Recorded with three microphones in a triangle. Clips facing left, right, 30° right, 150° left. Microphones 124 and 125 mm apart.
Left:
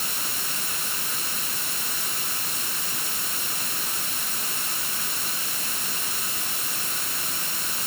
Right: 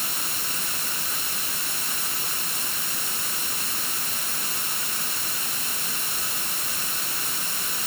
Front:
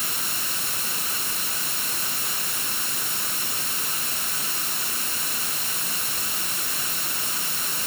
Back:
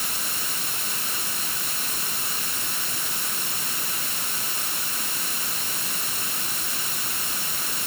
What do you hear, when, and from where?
Only background noise.